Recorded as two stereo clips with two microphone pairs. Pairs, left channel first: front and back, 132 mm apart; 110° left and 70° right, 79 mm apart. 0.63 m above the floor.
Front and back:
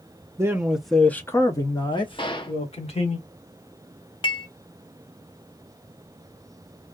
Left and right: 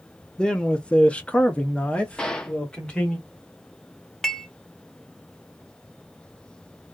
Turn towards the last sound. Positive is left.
turn(degrees=25)